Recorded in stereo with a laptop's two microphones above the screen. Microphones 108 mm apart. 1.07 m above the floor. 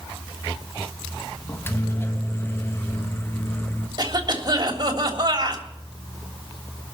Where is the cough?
40° right (ahead or behind), 3 m.